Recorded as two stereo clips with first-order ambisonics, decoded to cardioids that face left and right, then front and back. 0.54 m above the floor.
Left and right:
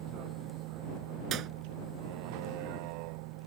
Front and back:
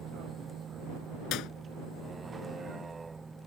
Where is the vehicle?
120° right; by 3.5 s 100° right.